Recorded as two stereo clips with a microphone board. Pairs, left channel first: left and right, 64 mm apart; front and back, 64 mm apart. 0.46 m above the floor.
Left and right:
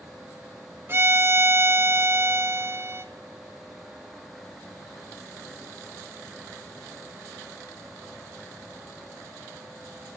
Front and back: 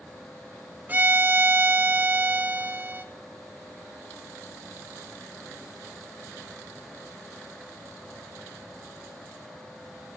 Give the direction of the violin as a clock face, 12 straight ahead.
4 o'clock.